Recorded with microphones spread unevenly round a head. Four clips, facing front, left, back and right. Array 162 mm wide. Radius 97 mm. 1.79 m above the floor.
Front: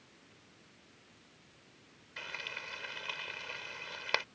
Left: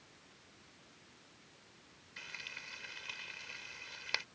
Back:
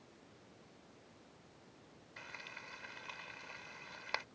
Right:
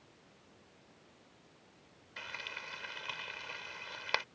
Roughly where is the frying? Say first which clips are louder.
Right 6 dB, front 7 dB; ahead right.